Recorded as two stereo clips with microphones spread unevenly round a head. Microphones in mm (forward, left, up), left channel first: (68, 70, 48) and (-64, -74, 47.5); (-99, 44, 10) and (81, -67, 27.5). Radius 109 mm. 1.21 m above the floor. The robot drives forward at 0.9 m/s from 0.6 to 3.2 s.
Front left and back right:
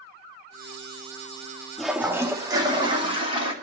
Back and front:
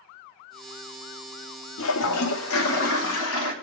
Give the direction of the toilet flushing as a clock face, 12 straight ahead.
7 o'clock.